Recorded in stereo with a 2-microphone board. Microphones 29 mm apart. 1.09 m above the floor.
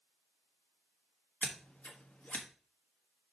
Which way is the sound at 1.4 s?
65° left (ahead or behind).